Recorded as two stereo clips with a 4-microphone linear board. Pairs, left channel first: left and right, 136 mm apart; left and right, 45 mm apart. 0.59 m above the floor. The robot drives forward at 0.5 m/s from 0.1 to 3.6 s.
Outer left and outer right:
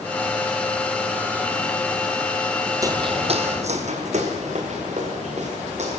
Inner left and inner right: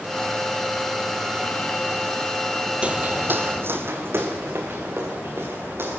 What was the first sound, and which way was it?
Footsteps, 25° right (ahead or behind).